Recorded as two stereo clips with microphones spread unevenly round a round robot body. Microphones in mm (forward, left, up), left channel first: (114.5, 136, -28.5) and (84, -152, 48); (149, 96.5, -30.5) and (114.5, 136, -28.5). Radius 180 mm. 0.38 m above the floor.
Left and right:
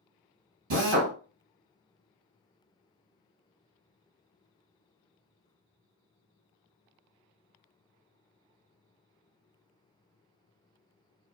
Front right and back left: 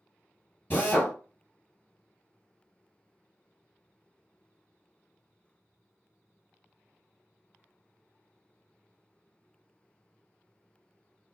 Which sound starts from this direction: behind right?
A drill, at 0.7 s.